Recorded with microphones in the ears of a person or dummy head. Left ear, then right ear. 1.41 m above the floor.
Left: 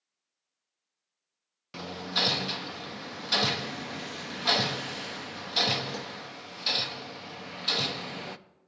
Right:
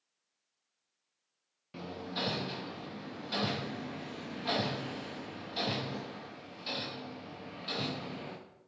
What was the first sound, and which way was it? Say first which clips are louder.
Hammering: left 9 dB; 50° left (ahead or behind).